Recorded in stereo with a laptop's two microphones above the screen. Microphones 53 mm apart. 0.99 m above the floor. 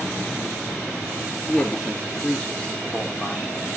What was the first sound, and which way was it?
A man speaking, 20° left (ahead or behind).